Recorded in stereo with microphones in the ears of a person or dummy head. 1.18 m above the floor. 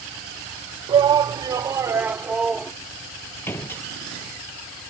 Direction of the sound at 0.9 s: 25° right (ahead or behind).